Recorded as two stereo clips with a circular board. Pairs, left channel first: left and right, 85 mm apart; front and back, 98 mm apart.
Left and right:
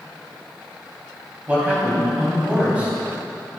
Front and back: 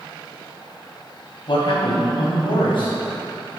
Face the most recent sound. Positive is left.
turn(degrees=-15)